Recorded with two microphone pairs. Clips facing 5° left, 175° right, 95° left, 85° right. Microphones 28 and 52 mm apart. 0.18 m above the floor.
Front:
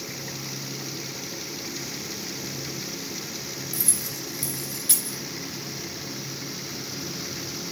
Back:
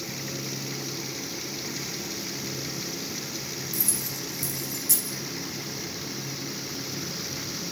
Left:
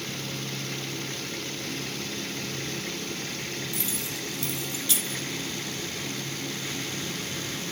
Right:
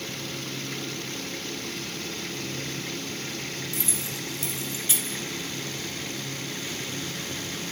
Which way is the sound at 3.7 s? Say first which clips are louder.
Even, even; 20° right.